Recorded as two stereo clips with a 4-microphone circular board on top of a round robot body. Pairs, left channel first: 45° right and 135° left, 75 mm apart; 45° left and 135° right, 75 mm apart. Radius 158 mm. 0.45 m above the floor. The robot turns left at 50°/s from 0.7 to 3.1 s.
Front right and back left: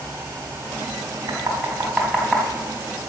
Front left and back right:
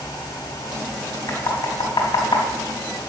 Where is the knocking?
90° left, 3.5 m; by 2.5 s 35° left, 3.5 m.